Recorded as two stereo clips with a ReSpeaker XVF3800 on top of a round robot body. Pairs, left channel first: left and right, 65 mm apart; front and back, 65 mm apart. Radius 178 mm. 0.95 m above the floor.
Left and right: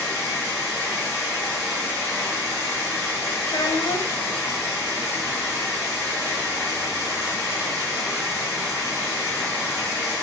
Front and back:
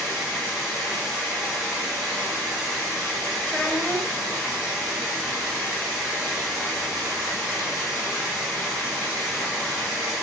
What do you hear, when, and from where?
0.0 s running water: 60° right, 1.1 m
3.5 s a child speaking: 75° left, 0.7 m